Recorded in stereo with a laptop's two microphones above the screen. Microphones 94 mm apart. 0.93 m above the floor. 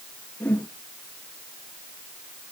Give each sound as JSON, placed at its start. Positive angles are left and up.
{"t": 0.4, "sound": "a whoosh", "side_deg": 20, "distance_m": 5.5}